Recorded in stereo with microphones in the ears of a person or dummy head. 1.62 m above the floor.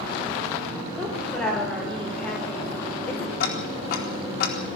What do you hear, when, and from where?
1.0 s a woman speaking: 10° left (ahead or behind), 5 m
3.4 s ticking: 65° left (ahead or behind), 4 m